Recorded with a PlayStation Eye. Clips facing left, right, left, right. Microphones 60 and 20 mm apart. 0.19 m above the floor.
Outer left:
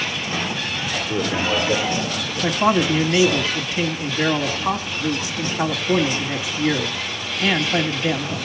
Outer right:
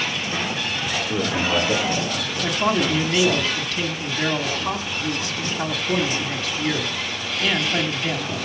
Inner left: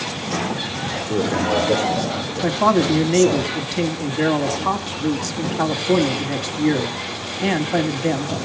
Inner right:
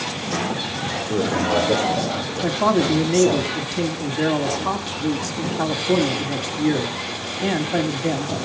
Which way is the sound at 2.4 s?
20° left (ahead or behind).